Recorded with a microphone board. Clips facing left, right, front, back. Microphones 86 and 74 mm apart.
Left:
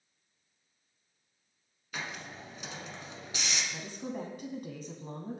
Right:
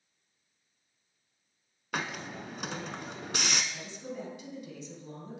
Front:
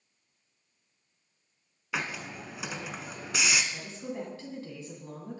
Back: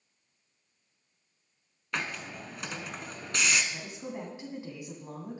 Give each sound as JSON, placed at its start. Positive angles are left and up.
{"t": 1.9, "sound": "a hiss", "azimuth_deg": -85, "distance_m": 1.0}
{"t": 3.7, "sound": "a woman speaking", "azimuth_deg": 115, "distance_m": 2.5}